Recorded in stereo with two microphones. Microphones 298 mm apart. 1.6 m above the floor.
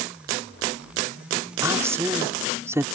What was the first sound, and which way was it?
A woman speaking, 10° right (ahead or behind).